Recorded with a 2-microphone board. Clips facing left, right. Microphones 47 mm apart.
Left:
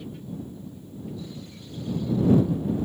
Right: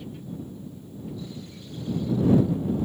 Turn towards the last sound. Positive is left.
No sound to turn to.